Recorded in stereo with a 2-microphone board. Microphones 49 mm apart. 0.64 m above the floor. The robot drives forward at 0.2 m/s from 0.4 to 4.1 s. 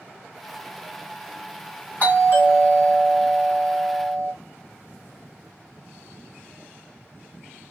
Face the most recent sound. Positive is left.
turn(degrees=30)  # may be behind; listen again after turning